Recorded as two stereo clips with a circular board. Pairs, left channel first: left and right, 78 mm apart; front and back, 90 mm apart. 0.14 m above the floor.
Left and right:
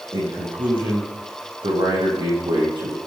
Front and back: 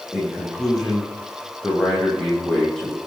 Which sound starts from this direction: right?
A man speaking, at 0.1 s.